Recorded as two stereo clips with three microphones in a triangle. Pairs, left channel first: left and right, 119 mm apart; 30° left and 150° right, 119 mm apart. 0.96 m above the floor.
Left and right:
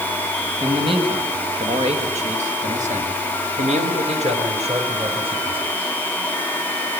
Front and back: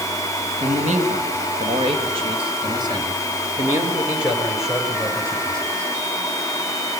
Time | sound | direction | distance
0.6 | a man speaking | 135° right | 5.5 m